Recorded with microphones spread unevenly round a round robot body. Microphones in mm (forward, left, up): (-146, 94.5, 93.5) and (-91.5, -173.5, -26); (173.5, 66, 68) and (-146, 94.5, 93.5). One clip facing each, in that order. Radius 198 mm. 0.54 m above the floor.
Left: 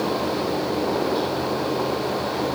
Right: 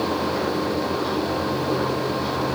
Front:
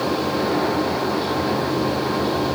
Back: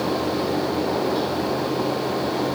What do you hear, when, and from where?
Only background noise.